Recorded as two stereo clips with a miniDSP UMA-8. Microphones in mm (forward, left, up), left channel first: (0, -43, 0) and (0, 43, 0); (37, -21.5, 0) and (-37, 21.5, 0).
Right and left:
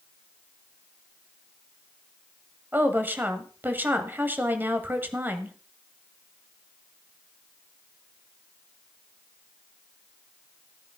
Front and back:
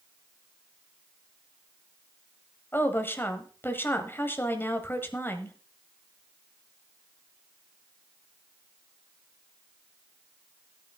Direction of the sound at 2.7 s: 30° left.